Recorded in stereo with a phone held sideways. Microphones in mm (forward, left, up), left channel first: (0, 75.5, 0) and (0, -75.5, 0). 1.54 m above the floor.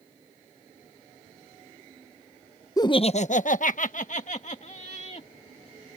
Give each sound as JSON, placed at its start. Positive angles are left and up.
{"t": 2.8, "sound": "laughter", "side_deg": 25}